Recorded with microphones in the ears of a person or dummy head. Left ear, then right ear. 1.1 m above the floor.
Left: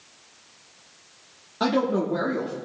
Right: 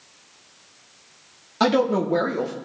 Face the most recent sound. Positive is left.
turn(degrees=-50)  # may be behind; listen again after turning